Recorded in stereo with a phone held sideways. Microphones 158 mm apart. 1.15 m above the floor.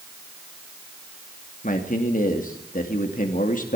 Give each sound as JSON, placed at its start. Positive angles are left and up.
{"t": 1.6, "sound": "a man speaking", "side_deg": 60, "distance_m": 2.5}